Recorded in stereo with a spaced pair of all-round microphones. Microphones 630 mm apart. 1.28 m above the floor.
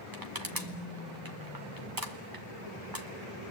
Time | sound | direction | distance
0.1 | crushing | 30° right (ahead or behind) | 1.5 m